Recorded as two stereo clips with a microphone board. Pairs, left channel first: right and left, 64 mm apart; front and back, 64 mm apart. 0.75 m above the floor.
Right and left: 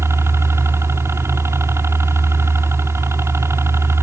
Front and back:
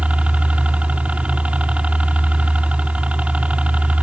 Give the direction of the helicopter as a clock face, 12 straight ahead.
8 o'clock.